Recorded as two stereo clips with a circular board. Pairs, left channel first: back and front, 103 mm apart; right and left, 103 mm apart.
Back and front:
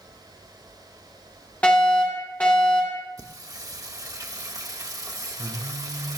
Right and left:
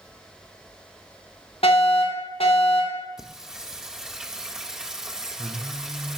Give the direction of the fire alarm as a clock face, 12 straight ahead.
3 o'clock.